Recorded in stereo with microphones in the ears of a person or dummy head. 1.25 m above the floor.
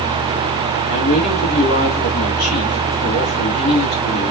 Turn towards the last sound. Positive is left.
turn(degrees=85)